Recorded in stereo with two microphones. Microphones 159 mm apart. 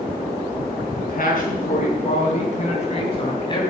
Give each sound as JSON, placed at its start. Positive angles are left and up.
{"t": 0.9, "sound": "a man speaking", "side_deg": 60, "distance_m": 5.5}